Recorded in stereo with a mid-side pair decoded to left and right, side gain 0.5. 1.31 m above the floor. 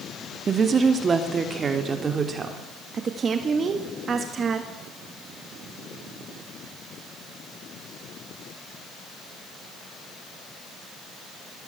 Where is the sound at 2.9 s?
45° right, 1.7 m.